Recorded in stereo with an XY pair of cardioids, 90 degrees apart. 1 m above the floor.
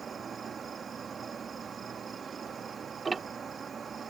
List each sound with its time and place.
0.0 s an insect: 50° right
3.0 s ticking: 35° right